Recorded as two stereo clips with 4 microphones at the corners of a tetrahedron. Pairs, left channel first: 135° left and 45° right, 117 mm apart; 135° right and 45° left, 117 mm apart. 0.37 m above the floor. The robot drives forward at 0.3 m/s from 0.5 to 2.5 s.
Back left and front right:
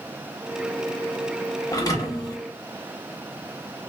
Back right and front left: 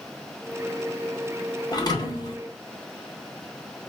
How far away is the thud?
About 0.6 m.